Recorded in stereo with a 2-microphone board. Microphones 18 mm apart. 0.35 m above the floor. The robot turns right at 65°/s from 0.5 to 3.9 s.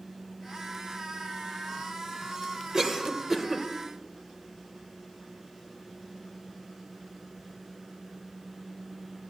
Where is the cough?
25° right (ahead or behind), 1.2 m; by 3.7 s centre (ahead or behind), 1.2 m.